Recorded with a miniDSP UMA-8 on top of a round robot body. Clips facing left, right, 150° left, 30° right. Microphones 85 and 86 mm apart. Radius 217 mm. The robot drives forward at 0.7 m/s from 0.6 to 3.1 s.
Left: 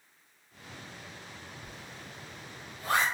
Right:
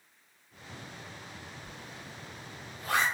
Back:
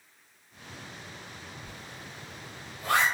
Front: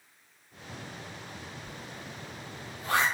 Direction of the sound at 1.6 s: 95° left.